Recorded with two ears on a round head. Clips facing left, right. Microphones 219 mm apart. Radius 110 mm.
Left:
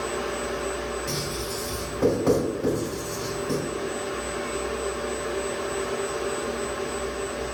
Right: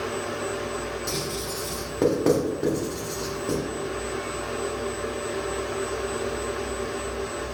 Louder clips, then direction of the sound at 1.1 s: Even; 80° right.